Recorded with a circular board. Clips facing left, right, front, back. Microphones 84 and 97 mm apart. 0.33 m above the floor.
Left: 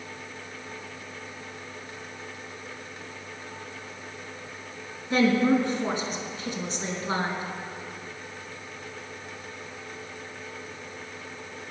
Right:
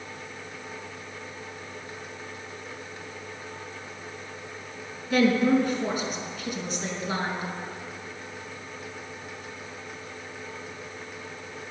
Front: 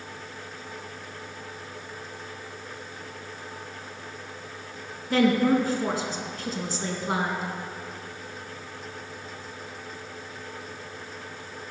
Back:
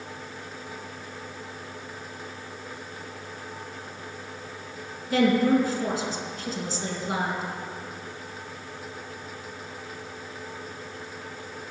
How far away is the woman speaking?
About 4 m.